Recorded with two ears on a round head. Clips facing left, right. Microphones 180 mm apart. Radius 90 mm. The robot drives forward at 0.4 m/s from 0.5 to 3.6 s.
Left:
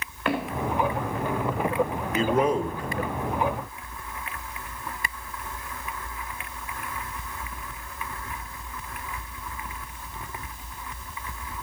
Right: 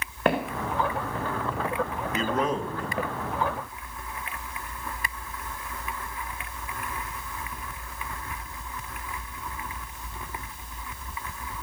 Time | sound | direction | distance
0.2 | footsteps | 35° right (ahead or behind) | 4 m
2.1 | a man speaking | 10° left (ahead or behind) | 1.2 m